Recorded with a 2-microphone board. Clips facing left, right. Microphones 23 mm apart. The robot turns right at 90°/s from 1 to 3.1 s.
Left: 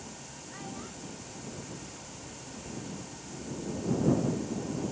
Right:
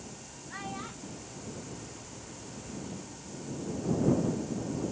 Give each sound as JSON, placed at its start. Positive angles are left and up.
{"t": 0.5, "sound": "a child speaking", "side_deg": -35}